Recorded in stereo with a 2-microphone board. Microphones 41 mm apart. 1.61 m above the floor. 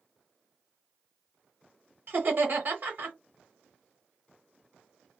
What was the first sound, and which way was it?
Laughter, 50° right (ahead or behind).